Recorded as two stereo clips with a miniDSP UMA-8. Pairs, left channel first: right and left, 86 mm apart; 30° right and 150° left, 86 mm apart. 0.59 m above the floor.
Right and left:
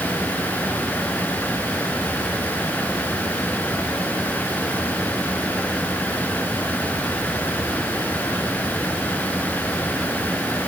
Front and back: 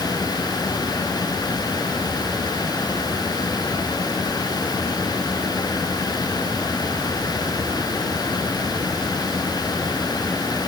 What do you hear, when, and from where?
Only background noise.